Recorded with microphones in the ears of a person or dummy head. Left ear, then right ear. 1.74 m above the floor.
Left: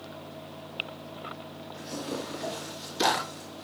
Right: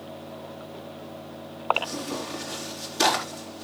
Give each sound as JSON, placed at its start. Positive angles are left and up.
{"t": 1.7, "sound": "tearing paper", "side_deg": -20, "distance_m": 3.5}